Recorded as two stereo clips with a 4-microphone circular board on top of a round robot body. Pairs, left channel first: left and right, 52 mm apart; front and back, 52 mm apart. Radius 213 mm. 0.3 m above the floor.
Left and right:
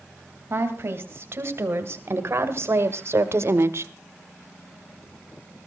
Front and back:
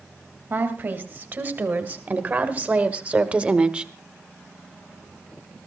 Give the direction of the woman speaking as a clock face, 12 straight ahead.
4 o'clock.